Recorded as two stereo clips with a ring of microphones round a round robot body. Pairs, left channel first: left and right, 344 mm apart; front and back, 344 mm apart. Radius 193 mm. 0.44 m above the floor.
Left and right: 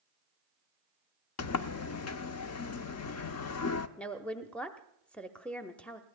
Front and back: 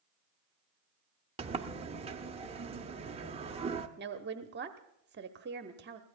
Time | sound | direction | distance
1.4 | a sliding door | 115° left | 0.7 m
4.0 | a woman speaking | 175° left | 0.9 m